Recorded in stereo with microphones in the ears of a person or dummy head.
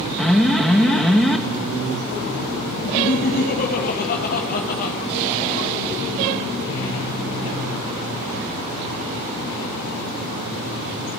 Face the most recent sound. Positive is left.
turn(degrees=45)  # may be behind; listen again after turning